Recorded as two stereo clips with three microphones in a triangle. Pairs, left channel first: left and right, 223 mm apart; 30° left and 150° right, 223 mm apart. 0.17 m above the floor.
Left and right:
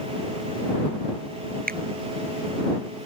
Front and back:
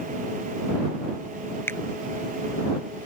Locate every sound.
1.7 s a finger snap: 50° right